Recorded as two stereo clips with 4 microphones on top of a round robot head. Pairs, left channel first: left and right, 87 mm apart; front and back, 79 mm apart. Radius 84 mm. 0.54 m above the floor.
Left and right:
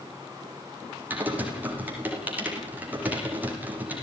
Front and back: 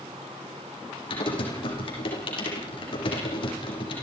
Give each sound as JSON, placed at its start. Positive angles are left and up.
{"t": 1.1, "sound": "typing on a keyboard", "azimuth_deg": -20, "distance_m": 7.0}